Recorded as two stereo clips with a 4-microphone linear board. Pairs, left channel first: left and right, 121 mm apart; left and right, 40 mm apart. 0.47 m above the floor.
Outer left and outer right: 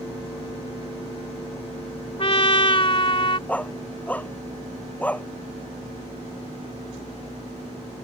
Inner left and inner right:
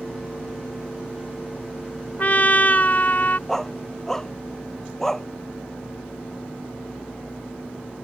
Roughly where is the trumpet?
Left.